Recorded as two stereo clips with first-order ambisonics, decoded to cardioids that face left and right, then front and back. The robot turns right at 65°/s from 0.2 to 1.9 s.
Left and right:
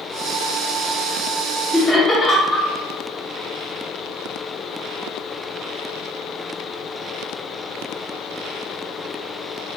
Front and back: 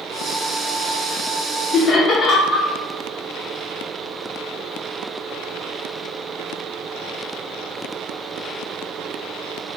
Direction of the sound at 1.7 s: 15° left.